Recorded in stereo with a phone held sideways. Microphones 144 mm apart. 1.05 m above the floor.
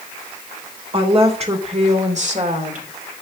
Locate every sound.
0.9 s a woman speaking: 40° right (ahead or behind), 3.5 m; by 2.9 s 65° right (ahead or behind), 3 m